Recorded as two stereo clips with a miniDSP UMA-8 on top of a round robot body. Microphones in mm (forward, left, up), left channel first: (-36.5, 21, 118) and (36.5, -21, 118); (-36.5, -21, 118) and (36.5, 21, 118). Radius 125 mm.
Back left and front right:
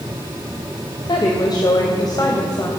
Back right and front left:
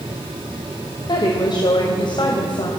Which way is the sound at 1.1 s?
Straight behind.